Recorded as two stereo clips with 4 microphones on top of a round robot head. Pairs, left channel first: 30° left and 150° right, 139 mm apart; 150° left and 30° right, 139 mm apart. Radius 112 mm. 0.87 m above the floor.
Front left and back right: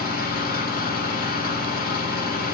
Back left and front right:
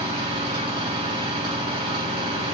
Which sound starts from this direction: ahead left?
An engine running, at 0.0 s.